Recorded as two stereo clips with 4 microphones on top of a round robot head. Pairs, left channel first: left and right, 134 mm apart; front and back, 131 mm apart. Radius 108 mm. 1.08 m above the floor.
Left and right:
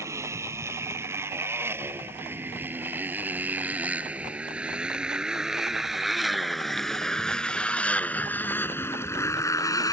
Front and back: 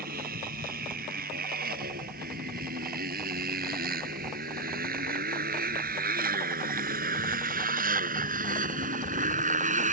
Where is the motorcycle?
160° right; by 9.9 s 155° left.